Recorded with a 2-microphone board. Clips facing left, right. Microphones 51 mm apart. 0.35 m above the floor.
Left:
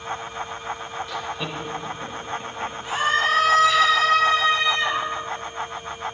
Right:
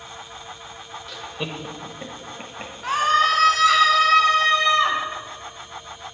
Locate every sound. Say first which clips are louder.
1.1 s laughter: right 1 dB; 5° left (ahead or behind), 1.1 m; by 2.7 s 45° right (ahead or behind), 2.5 m
2.8 s a scream: right 3 dB; 60° right (ahead or behind), 4.5 m